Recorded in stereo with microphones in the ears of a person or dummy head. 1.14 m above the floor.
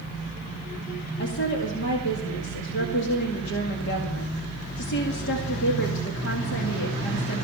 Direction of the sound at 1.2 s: 60° left (ahead or behind).